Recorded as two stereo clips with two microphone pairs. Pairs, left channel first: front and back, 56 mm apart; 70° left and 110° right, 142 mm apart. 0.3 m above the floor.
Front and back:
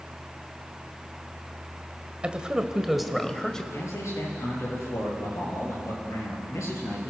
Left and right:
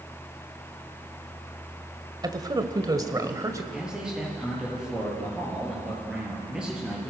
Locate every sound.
2.2 s a man speaking: 130° right, 1.5 m; by 3.6 s 65° right, 1.5 m
3.7 s a man speaking: 25° right, 7.5 m